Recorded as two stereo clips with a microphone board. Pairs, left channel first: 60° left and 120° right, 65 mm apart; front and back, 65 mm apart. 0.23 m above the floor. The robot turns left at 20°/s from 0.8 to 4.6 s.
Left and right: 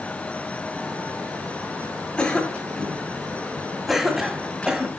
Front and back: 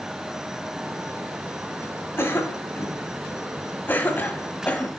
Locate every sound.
2.2 s a cough: straight ahead, 1.4 m; by 4.9 s 50° right, 1.4 m